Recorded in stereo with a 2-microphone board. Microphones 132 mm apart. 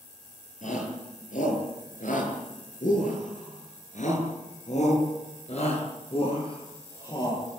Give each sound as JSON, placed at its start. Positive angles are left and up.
{"t": 0.6, "sound": "a shout", "side_deg": 70, "distance_m": 8.5}